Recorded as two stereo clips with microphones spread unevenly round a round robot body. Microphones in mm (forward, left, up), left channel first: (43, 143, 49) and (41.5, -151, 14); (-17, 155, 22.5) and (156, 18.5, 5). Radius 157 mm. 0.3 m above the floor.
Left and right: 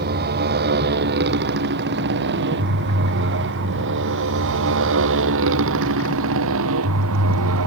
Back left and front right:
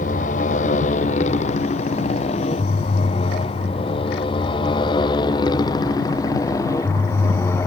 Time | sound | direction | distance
0.0 | a motorcycle | 150° right | ?